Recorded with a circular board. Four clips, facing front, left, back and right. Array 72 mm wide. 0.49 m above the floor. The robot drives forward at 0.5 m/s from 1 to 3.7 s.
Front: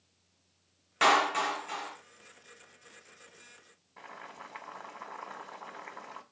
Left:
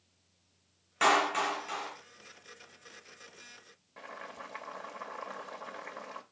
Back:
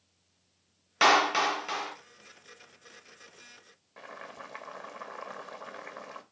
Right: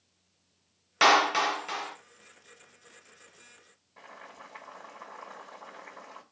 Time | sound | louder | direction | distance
1.0 | a clap | right 4 dB, back 2 dB | 115° right | 0.6 m
4.0 | boiling | left 3 dB, back 2 dB | 150° left | 1.1 m